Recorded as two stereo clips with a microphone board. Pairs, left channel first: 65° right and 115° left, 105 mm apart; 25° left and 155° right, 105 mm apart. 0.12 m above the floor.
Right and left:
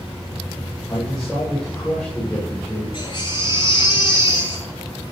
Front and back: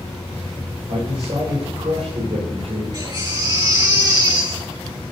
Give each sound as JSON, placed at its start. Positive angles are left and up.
{"t": 0.9, "sound": "a man speaking", "azimuth_deg": -155, "distance_m": 9.5}
{"t": 2.9, "sound": "a baby crying", "azimuth_deg": -110, "distance_m": 9.5}